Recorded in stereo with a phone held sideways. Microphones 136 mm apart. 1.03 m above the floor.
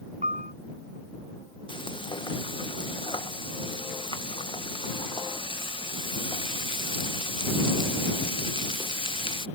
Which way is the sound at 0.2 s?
70° right (ahead or behind).